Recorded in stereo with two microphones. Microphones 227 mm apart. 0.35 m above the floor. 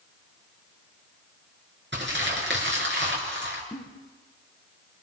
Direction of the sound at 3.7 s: 15° left (ahead or behind).